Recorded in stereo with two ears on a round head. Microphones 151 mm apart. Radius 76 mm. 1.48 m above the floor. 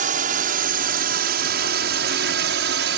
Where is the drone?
50° right (ahead or behind); by 3.0 s 75° right (ahead or behind).